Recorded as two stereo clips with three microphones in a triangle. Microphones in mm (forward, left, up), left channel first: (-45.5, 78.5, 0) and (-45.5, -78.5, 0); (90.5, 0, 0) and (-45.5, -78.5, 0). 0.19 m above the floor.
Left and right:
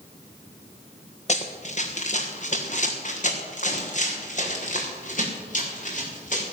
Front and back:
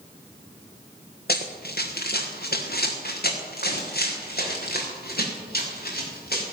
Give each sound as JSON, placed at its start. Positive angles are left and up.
{"t": 1.3, "sound": "running footsteps", "azimuth_deg": 45, "distance_m": 2.0}